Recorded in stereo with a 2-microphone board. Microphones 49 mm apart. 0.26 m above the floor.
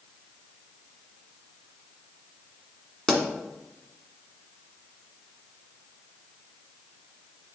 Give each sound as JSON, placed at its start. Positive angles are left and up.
{"t": 3.1, "sound": "a pop", "side_deg": 10, "distance_m": 1.5}